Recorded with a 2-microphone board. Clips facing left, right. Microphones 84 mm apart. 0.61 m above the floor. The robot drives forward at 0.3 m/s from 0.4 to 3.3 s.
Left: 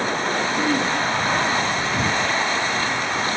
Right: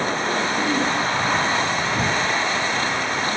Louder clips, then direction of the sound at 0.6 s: Even; 20° left (ahead or behind).